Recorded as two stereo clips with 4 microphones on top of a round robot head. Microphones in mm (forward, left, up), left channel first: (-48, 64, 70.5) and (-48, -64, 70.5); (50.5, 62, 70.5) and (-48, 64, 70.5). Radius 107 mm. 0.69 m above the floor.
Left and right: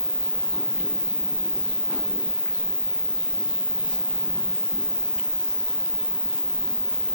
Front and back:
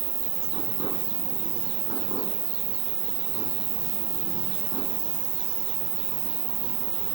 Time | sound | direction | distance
0.0 | an insect | 175° left | ?